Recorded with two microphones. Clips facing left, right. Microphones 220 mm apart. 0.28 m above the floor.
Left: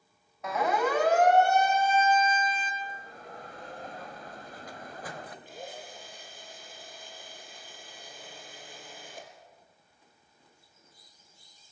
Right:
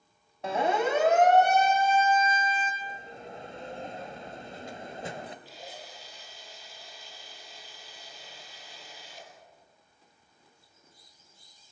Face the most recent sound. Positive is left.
turn(degrees=55)  # may be behind; listen again after turning